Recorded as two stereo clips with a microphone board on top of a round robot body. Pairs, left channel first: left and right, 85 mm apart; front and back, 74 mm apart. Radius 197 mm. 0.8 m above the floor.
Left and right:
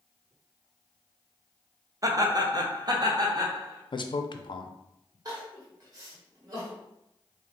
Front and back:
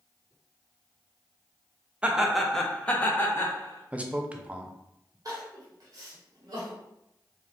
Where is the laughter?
110° right, 0.9 m; by 3.8 s 50° right, 1.3 m.